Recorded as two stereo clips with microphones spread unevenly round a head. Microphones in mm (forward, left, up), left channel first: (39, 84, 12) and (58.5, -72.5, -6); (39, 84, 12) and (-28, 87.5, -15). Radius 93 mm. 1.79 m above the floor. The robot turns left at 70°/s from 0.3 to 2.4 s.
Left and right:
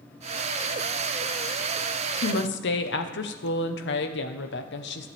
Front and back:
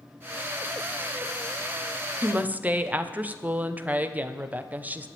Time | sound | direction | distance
2.2 | a woman speaking | 115° left | 1.2 m